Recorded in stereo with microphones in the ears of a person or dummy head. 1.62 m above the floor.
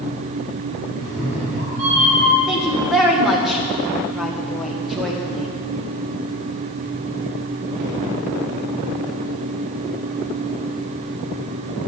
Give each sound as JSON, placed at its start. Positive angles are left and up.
{"t": 1.0, "sound": "a cat meowing", "side_deg": -75, "distance_m": 4.5}
{"t": 2.5, "sound": "a woman speaking", "side_deg": 0, "distance_m": 2.0}